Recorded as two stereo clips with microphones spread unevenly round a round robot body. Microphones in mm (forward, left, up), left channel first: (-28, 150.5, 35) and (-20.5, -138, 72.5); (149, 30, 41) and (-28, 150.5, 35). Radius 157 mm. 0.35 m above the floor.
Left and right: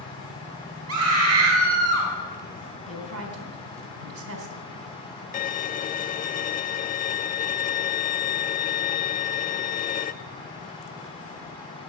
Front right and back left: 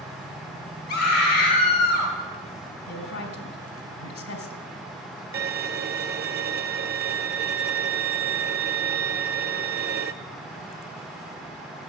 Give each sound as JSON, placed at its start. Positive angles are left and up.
{"t": 0.9, "sound": "a scream", "azimuth_deg": -60, "distance_m": 2.0}
{"t": 2.9, "sound": "a woman speaking", "azimuth_deg": -45, "distance_m": 2.5}
{"t": 5.3, "sound": "a violin", "azimuth_deg": 135, "distance_m": 0.5}